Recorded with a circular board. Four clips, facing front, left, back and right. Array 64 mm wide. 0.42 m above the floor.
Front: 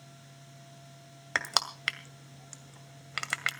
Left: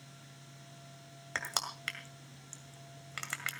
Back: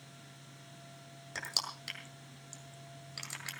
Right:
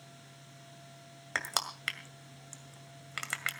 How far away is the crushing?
About 1.9 m.